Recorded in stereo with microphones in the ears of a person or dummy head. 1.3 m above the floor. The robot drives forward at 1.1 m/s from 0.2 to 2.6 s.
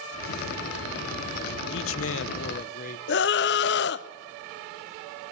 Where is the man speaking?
60° left (ahead or behind), 0.8 m; by 3.0 s 45° left (ahead or behind), 1.0 m.